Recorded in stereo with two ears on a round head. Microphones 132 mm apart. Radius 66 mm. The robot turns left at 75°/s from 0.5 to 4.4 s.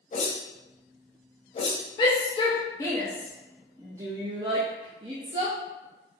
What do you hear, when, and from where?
0.1 s a whoosh: 45° left (ahead or behind), 0.9 m; by 1.8 s 25° left (ahead or behind), 0.9 m
2.0 s a shout: 30° left (ahead or behind), 0.6 m; by 5.6 s 30° right (ahead or behind), 0.6 m